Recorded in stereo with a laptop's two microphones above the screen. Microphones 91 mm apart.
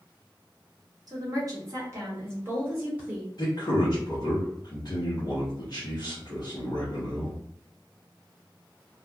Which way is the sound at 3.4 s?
50° left (ahead or behind).